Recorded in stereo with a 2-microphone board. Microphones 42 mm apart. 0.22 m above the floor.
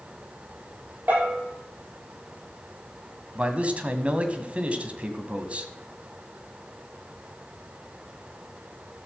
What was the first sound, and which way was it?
A bell, 50° right (ahead or behind).